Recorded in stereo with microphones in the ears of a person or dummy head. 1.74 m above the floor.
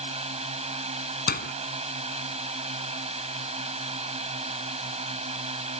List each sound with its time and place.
0.0 s a drone: 35° right (ahead or behind)
1.3 s a door slam: 50° left (ahead or behind)